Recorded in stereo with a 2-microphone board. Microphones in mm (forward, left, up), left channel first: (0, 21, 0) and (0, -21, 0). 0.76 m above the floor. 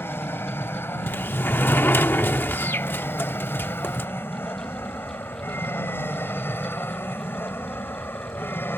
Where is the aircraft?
65° left (ahead or behind); by 8.8 s 60° left (ahead or behind).